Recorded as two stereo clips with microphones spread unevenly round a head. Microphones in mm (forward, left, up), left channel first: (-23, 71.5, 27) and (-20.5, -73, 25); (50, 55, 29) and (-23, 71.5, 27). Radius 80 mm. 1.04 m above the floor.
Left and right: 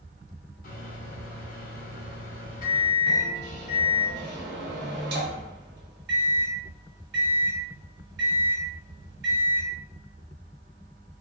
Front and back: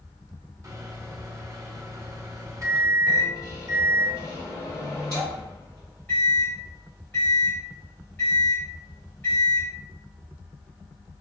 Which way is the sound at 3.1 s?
95° right.